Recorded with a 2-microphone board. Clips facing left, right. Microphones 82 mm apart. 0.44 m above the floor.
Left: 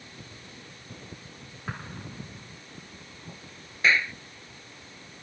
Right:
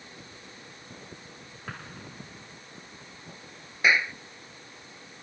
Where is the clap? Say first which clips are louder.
Even; 15° right (ahead or behind).